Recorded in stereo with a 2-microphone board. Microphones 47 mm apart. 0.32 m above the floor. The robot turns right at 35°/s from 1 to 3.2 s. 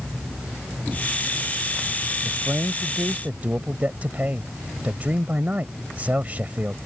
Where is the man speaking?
95° right; by 6.8 s 65° right.